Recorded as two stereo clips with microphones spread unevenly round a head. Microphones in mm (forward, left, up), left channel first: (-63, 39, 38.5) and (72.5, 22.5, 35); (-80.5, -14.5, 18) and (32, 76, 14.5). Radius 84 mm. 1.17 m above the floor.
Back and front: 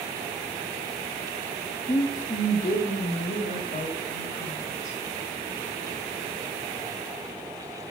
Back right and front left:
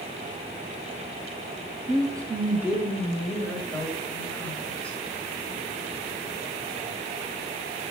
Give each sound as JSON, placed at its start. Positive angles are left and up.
{"t": 1.9, "sound": "a woman speaking", "azimuth_deg": 90, "distance_m": 1.2}